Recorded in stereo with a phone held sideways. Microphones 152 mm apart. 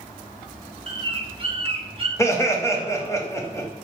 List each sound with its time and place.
0.9 s a bird: 35° right (ahead or behind), 0.8 m
2.2 s laughter: 20° left (ahead or behind), 0.8 m